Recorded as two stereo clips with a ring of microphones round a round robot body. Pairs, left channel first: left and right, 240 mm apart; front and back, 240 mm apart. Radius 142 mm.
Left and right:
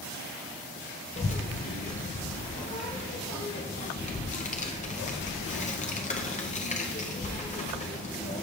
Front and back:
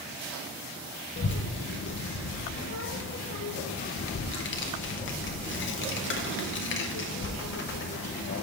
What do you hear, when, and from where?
1.2 s a child speaking: 30° left, 0.5 m